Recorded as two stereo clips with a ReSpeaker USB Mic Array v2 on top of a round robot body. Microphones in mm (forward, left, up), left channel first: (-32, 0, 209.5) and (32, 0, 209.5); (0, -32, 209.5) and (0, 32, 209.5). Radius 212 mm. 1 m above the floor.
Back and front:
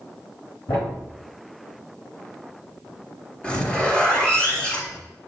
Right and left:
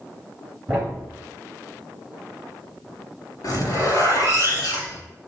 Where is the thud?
160° left, 1.9 m.